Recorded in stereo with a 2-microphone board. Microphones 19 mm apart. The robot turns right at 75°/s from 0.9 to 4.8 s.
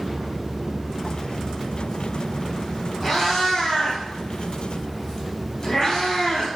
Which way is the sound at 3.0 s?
5° right (ahead or behind).